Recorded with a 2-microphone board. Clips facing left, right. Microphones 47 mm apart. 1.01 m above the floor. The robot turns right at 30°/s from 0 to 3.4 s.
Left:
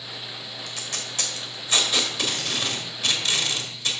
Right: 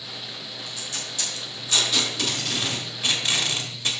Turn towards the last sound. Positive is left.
turn(degrees=-25)  # may be behind; listen again after turning